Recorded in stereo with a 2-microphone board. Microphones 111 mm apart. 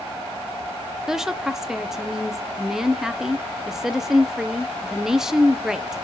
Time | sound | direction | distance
1.1 | a woman speaking | 5° right (ahead or behind) | 0.8 m